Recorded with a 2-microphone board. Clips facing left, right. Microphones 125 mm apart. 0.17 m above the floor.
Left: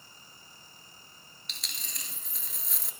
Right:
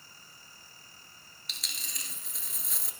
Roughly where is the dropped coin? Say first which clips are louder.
Even; centre.